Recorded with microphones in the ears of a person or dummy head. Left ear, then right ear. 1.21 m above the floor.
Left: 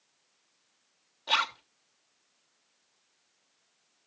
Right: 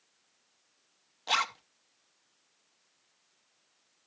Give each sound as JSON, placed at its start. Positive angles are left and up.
{"t": 1.3, "sound": "a zipper", "side_deg": -40, "distance_m": 0.8}